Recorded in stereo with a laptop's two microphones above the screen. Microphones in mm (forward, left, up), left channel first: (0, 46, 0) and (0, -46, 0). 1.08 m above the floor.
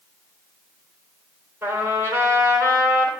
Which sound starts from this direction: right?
A trumpet, at 1.6 s.